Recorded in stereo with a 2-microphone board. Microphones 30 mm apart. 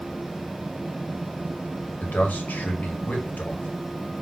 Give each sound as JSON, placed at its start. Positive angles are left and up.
{"t": 2.0, "sound": "a man speaking", "side_deg": 80, "distance_m": 1.3}